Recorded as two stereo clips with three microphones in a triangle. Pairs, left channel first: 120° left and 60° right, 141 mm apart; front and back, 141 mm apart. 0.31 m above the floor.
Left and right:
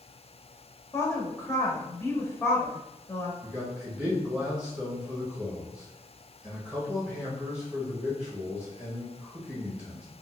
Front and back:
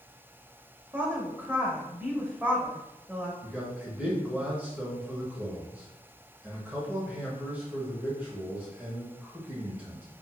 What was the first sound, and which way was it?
A woman speaking, 135° left.